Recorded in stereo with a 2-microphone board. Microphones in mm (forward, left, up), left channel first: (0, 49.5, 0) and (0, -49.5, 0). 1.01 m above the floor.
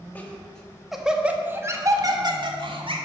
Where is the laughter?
15° left (ahead or behind), 1.5 m; by 3.0 s 60° right (ahead or behind), 1.5 m.